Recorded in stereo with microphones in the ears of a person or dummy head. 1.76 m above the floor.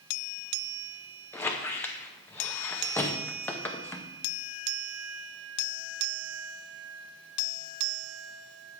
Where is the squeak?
5° left (ahead or behind), 0.8 m.